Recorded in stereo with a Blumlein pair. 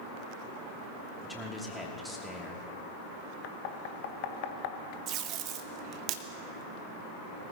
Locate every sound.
1.2 s a man speaking: 5° left, 3 m
3.4 s knocking: 50° left, 0.9 m
5.1 s tape being pulled: 35° right, 1.0 m